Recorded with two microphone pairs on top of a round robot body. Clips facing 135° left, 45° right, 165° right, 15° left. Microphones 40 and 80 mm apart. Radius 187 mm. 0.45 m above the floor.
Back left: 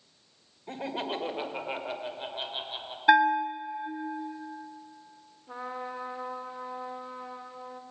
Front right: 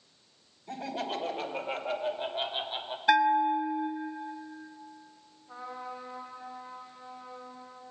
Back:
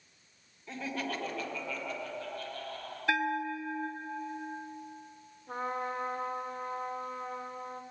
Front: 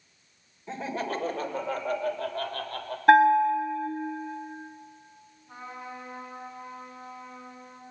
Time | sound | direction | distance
0.7 | laughter | 85° left | 2.5 m
3.1 | a bell | 55° left | 0.6 m
5.5 | a trumpet | 170° left | 2.5 m